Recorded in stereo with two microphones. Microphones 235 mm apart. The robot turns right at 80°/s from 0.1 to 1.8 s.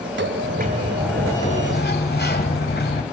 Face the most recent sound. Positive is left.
turn(degrees=50)